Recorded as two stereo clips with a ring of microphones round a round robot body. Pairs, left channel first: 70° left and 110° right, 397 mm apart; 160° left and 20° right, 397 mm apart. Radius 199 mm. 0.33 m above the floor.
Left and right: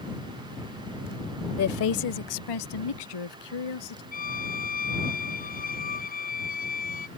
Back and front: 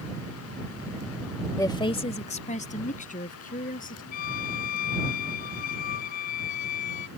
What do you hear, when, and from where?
1.6 s a woman speaking: 80° left; by 4.0 s 90° left
4.1 s a violin: 135° left